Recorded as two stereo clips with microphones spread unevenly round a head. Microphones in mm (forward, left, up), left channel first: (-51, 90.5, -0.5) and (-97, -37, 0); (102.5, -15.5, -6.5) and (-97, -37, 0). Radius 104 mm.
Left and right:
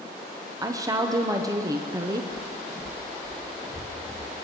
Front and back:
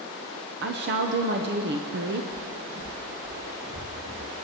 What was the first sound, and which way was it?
A woman speaking, 165° right.